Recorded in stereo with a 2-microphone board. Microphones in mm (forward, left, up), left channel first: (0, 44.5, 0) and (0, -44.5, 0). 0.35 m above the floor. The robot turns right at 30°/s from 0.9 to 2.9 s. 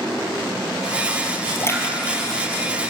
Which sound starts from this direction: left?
A splash, at 1.6 s.